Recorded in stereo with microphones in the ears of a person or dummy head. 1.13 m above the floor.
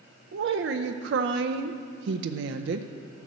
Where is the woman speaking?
65° right (ahead or behind), 0.5 m.